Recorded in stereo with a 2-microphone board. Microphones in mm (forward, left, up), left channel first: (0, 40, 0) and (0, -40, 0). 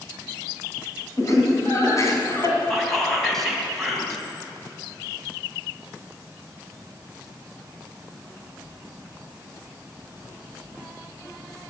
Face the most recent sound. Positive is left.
turn(degrees=5)  # may be behind; listen again after turning